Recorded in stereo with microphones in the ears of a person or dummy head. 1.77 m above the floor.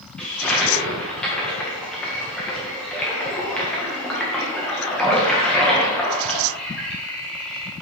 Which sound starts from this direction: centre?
A toilet flushing, at 0.2 s.